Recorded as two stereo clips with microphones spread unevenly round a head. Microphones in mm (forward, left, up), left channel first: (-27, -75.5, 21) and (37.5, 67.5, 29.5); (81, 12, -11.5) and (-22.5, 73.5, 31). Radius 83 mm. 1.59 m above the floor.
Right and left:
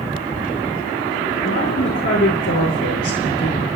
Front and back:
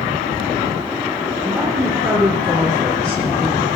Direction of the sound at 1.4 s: 130° right.